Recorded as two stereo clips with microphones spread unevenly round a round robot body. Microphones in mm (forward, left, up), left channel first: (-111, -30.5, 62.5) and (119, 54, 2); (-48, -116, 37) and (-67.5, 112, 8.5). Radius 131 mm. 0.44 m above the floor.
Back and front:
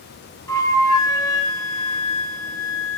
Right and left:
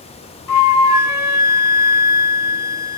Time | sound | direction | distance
0.5 | a flute | 80° right | 2.5 m